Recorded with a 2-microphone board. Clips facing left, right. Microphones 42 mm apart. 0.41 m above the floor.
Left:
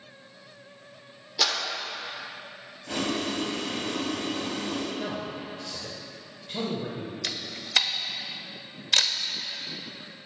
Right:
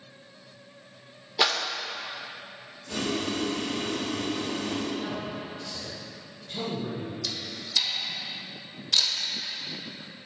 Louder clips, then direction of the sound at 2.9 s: Left 1 dB; 60° left (ahead or behind).